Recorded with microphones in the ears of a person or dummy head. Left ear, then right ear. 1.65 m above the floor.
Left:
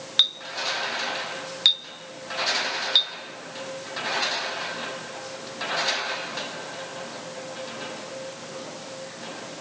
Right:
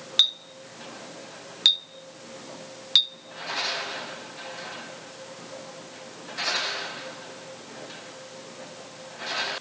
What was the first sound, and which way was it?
A clink, 5° right (ahead or behind).